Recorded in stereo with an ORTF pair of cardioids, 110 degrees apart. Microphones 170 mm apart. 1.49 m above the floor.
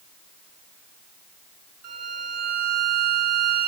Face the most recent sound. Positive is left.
turn(degrees=-55)